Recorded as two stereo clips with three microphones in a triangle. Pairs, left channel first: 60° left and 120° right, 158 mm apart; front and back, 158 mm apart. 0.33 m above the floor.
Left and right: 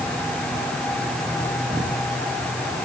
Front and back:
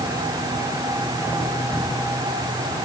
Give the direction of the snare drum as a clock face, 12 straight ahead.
I don't hear a snare drum.